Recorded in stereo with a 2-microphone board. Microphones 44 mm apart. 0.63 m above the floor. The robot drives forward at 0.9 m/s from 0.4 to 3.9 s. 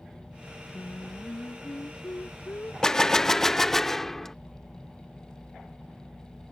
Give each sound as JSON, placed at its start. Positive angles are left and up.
{"t": 0.7, "sound": "singing", "side_deg": 75}
{"t": 2.8, "sound": "a gunshot", "side_deg": 15}